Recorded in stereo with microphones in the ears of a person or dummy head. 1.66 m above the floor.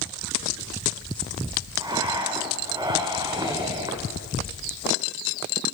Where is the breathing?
20° right (ahead or behind), 2.5 m.